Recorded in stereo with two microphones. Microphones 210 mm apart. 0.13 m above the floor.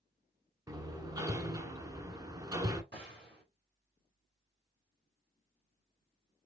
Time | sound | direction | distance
0.7 | hammering | 15° right (ahead or behind) | 0.8 m
2.9 | a gunshot | 55° right (ahead or behind) | 3.5 m